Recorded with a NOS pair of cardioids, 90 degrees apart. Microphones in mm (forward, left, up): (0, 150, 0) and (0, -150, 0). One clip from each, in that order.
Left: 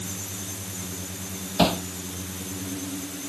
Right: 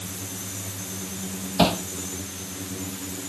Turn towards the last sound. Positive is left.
turn(degrees=-5)